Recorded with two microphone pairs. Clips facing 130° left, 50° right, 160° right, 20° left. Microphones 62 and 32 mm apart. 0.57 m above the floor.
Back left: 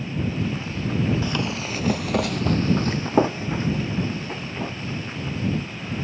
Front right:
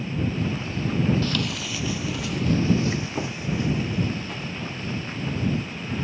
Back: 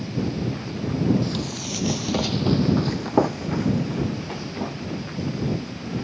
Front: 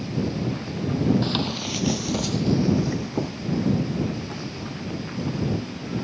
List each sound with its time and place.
1.2 s running footsteps: 60° left; by 5.1 s 170° right